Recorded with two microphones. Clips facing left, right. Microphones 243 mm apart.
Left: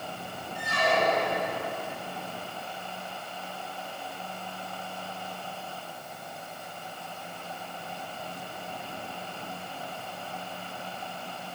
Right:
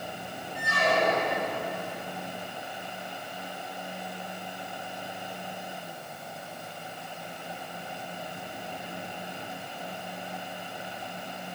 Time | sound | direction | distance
0.6 | a squeak | 60° right (ahead or behind) | 3.5 m